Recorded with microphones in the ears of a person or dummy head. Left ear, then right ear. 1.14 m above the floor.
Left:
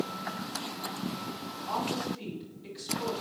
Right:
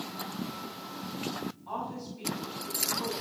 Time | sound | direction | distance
1.7 | a woman speaking | 5° right (ahead or behind) | 6.5 m